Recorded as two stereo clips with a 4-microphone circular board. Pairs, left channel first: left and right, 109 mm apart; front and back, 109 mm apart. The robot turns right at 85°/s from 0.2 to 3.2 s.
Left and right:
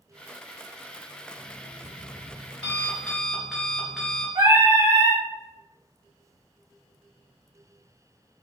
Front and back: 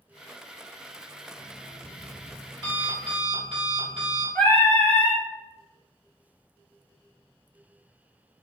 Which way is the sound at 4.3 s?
60° right.